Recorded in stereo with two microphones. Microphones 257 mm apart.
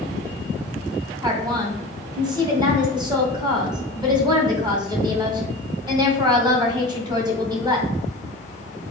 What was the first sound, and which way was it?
A woman speaking, 15° right (ahead or behind).